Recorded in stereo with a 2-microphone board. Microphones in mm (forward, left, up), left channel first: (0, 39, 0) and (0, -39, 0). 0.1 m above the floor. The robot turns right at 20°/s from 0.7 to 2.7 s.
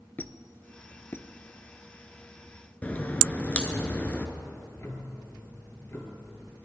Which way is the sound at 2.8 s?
20° left (ahead or behind).